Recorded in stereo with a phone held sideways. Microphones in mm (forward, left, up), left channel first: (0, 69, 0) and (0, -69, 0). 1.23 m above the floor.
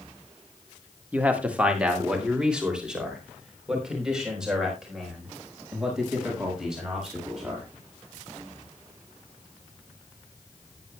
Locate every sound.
1.1 s a man speaking: 10° right (ahead or behind), 1.5 m; by 7.7 s 5° right (ahead or behind), 7 m